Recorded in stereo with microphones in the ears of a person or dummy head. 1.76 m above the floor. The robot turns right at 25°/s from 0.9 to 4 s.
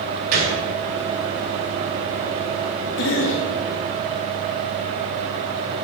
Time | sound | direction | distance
0.3 | a gunshot | 60° right (ahead or behind) | 3 m
3.0 | a cough | 70° left (ahead or behind) | 3 m